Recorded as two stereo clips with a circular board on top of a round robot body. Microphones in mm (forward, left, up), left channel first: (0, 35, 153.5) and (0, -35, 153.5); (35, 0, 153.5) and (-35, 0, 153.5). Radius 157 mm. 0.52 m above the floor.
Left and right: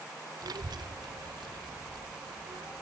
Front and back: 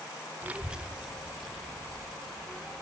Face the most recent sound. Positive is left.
turn(degrees=-85)